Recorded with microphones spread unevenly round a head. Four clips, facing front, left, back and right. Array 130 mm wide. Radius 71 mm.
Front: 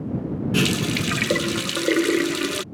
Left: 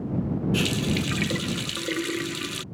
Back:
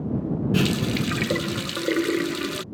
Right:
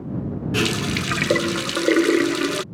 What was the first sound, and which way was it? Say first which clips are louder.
A running tap: right 6 dB, front 2 dB; 70° right.